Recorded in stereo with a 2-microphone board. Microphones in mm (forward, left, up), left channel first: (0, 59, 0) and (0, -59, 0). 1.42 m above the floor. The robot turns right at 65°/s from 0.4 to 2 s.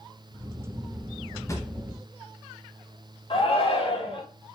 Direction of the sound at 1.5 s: 25° left (ahead or behind).